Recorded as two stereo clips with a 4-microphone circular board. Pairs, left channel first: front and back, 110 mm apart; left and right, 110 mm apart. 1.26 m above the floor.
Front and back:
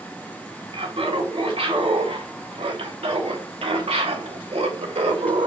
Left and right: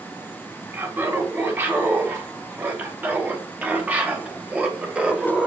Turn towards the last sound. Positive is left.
turn(degrees=-175)